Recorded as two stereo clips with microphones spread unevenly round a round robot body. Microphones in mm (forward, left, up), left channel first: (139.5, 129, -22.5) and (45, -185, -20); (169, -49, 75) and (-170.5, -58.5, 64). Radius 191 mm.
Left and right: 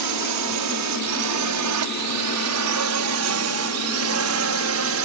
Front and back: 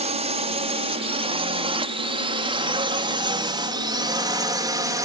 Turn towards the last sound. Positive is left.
turn(degrees=-105)